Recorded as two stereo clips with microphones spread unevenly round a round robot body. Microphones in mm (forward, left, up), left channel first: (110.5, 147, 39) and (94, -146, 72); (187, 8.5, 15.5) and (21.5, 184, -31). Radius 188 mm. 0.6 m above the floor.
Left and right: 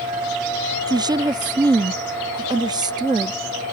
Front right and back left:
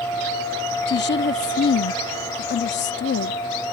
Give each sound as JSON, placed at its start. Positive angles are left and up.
{"t": 0.9, "sound": "a woman speaking", "azimuth_deg": -15}